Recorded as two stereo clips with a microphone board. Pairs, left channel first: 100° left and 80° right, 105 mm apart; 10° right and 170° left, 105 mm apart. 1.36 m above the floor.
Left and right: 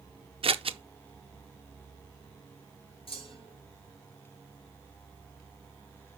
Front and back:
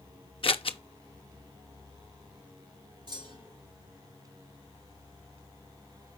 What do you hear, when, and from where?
0.4 s scissors: 45° right, 0.6 m
3.1 s a clunk: 130° left, 4.5 m